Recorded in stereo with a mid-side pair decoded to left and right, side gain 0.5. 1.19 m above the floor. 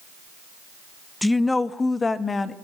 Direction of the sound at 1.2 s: 10° left.